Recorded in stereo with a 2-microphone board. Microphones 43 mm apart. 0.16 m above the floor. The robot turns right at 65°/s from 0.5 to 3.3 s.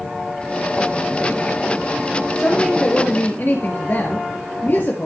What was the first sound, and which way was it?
A woman speaking, 5° right.